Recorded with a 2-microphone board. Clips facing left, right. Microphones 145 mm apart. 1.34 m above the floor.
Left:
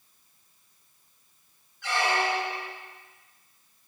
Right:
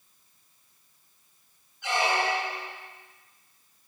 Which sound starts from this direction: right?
A squeak, at 1.8 s.